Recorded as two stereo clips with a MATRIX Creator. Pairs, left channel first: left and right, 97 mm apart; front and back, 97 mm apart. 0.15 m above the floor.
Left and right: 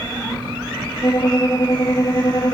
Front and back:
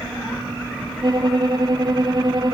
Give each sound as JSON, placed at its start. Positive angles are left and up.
{"t": 1.0, "sound": "a violin", "azimuth_deg": 140, "distance_m": 1.1}